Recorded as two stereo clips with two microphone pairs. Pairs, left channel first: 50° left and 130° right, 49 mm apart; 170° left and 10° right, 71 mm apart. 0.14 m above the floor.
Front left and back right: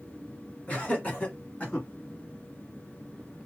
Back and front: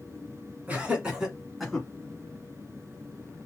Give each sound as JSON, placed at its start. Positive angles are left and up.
{"t": 0.7, "sound": "laughter", "azimuth_deg": 25, "distance_m": 1.5}